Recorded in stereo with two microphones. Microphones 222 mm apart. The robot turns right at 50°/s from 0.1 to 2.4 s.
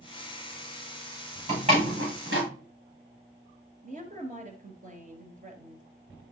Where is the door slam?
20° right (ahead or behind), 5.5 m; by 2.5 s 65° right (ahead or behind), 5.5 m.